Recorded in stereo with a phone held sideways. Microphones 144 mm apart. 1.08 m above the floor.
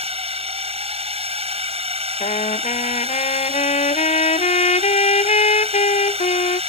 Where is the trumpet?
50° left (ahead or behind).